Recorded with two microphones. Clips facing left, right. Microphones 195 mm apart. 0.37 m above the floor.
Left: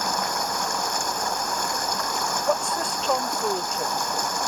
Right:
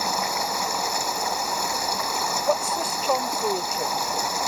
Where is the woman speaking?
5° right (ahead or behind).